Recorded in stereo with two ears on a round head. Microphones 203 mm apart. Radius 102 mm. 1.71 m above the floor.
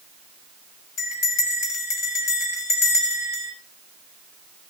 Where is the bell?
65° left (ahead or behind), 5 m.